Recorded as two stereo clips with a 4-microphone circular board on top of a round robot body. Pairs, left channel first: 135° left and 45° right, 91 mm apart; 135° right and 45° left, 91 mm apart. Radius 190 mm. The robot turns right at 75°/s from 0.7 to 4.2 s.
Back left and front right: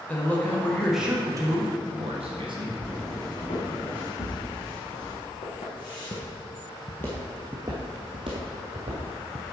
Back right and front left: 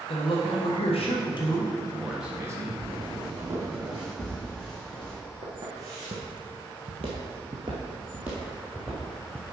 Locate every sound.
0.1 s a man speaking: 150° right, 1.5 m; by 2.8 s 5° left, 1.5 m
2.8 s footsteps: 65° left, 2 m; by 5.2 s 130° left, 5 m
5.4 s footsteps: 105° left, 2.5 m; by 9.4 s 45° right, 2.5 m